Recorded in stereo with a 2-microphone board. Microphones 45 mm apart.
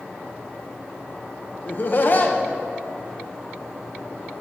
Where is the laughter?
45° left (ahead or behind), 0.9 m.